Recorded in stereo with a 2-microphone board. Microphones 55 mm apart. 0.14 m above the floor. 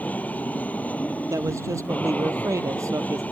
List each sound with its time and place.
0.0 s an aircraft: 30° left (ahead or behind)
1.3 s a man speaking: 75° right (ahead or behind)